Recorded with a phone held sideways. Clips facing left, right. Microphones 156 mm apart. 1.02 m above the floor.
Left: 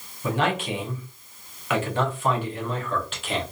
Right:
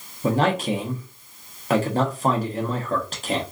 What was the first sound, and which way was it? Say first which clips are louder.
A man speaking: right 4 dB; 40° right (ahead or behind).